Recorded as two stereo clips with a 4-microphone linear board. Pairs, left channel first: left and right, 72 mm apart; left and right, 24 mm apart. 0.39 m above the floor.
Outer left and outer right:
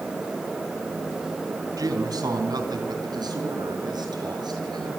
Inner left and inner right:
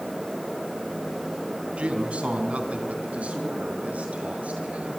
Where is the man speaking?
60° right (ahead or behind), 3 m; by 4.9 s 75° right (ahead or behind), 7.5 m.